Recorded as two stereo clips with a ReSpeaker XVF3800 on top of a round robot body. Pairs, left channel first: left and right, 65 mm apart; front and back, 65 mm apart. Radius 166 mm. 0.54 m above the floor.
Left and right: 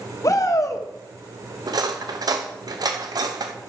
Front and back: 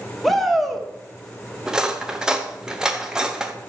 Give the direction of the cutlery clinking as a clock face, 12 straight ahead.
3 o'clock.